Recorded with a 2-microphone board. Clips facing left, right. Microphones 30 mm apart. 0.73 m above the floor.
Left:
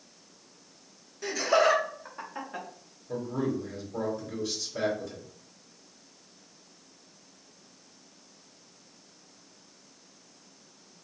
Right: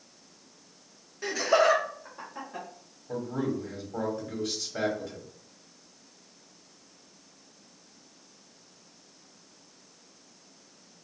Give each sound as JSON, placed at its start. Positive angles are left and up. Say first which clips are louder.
{"t": 1.2, "sound": "laughter", "louder": "right 1 dB", "side_deg": -20, "distance_m": 0.8}
{"t": 3.1, "sound": "a man speaking", "louder": "even", "side_deg": -65, "distance_m": 1.5}